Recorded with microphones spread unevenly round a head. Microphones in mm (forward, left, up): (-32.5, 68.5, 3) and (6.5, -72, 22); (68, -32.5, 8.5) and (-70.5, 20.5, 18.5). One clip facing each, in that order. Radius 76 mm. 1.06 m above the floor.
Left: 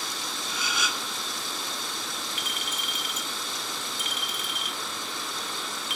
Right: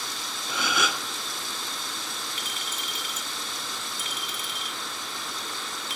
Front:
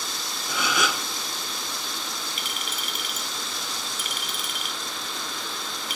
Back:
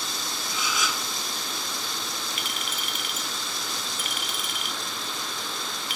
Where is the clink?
15° right, 1.0 m.